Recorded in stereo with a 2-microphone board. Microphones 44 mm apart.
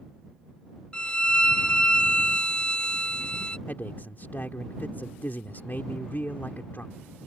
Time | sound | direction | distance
0.9 | a violin | 20° left (ahead or behind) | ?
3.7 | a man speaking | 45° left (ahead or behind) | ?